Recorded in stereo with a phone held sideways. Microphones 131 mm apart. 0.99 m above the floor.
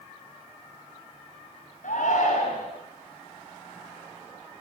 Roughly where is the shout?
Left.